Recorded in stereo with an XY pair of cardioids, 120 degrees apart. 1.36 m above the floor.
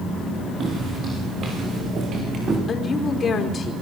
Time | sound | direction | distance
0.6 | footsteps | 45° right | 6.5 m
2.7 | a woman speaking | 35° left | 4.5 m